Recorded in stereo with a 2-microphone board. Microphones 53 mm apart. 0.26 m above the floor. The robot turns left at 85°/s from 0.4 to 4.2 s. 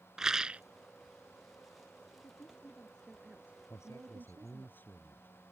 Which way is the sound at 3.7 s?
85° left.